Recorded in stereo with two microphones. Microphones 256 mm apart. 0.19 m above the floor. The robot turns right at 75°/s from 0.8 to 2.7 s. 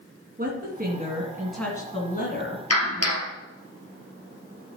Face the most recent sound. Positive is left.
turn(degrees=70)  # may be behind; listen again after turning